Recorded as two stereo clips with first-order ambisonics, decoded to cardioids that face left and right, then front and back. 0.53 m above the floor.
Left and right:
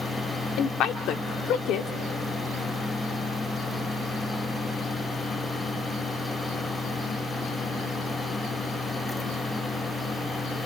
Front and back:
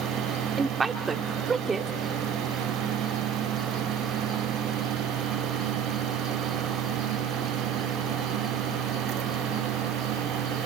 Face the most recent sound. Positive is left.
turn(degrees=110)